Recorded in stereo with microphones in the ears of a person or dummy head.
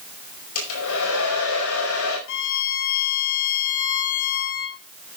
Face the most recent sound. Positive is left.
turn(degrees=65)  # may be behind; listen again after turning